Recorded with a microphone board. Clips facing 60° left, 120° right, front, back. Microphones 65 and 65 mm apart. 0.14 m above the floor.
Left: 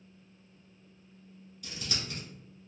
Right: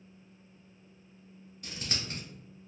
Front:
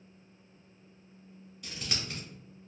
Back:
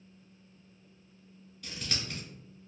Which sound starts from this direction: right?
Scissors, at 1.6 s.